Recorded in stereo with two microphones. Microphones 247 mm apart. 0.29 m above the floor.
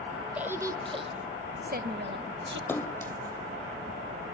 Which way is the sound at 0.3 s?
5° right (ahead or behind).